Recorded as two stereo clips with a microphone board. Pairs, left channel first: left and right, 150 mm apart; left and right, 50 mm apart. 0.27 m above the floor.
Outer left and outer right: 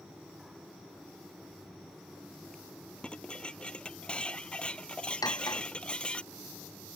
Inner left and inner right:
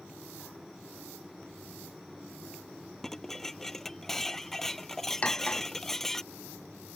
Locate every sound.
3.0 s dishes clattering: 5° left (ahead or behind)
5.2 s cutlery clinking: 25° left (ahead or behind)